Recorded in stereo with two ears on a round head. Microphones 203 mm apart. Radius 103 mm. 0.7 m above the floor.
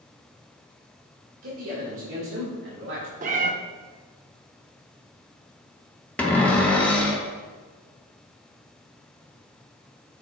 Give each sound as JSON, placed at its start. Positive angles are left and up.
{"t": 1.4, "sound": "a man speaking", "side_deg": -70, "distance_m": 2.0}
{"t": 3.2, "sound": "a cat meowing", "side_deg": -35, "distance_m": 0.6}
{"t": 6.2, "sound": "a cupboard door", "side_deg": 5, "distance_m": 1.1}